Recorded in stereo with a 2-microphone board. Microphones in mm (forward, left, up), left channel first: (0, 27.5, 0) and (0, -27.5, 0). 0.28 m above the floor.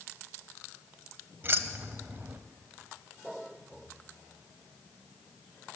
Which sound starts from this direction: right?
Keys jangling, at 1.4 s.